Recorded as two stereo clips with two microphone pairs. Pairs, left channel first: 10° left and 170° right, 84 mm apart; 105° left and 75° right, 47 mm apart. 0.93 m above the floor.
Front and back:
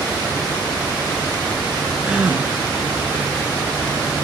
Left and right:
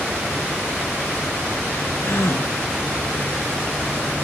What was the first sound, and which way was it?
A gasp, 115° left.